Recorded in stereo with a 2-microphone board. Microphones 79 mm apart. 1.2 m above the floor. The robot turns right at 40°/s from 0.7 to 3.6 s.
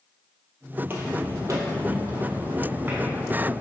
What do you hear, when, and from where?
0.8 s footsteps: 25° right (ahead or behind), 1.4 m; by 3.5 s centre (ahead or behind), 2.5 m